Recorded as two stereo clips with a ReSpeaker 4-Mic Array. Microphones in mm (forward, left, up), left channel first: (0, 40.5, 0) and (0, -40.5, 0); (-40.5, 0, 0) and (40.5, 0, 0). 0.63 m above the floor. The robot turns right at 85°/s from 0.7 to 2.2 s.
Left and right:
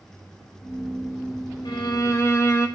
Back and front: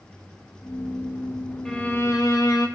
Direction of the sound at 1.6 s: 95° left.